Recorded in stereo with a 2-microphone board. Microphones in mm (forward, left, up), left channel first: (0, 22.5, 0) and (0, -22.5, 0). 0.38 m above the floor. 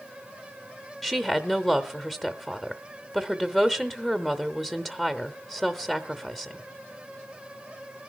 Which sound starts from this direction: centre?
A woman speaking, at 1.0 s.